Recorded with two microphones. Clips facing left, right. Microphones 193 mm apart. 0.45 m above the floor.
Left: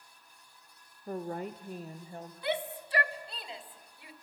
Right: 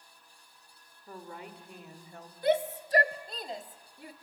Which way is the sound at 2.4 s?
45° right (ahead or behind).